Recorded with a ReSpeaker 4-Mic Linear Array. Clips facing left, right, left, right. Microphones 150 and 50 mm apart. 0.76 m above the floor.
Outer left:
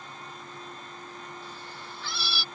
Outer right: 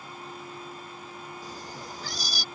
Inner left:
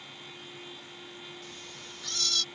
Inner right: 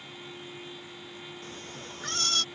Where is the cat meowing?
35° right (ahead or behind); by 2.5 s 40° right (ahead or behind).